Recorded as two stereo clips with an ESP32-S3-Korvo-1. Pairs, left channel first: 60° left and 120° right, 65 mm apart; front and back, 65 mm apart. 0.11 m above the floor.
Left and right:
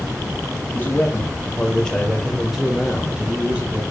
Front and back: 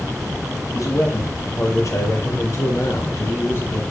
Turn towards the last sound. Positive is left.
turn(degrees=-50)